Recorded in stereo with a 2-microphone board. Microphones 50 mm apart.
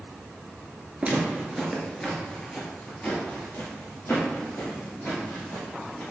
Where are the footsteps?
25° right (ahead or behind), 1.2 m; by 6.0 s 65° left (ahead or behind), 3.5 m.